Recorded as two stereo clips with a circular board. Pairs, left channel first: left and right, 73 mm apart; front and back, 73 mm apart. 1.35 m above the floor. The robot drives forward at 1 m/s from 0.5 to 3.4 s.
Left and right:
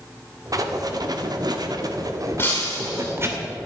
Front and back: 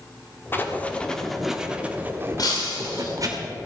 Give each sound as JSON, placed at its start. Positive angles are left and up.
{"t": 0.5, "sound": "writing", "azimuth_deg": -60, "distance_m": 1.7}
{"t": 2.4, "sound": "breaking glass", "azimuth_deg": 25, "distance_m": 5.5}